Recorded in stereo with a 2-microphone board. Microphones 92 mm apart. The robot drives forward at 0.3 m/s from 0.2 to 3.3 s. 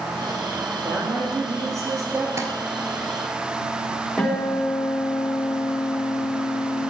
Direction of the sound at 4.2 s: 5° left (ahead or behind).